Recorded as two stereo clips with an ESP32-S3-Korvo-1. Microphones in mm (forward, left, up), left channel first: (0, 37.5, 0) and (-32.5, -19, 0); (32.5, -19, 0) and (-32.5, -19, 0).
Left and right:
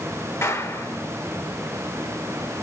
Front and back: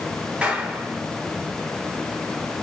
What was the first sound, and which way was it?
A clap, 105° left.